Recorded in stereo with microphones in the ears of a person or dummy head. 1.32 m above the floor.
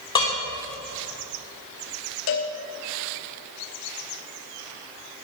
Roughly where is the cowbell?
Left.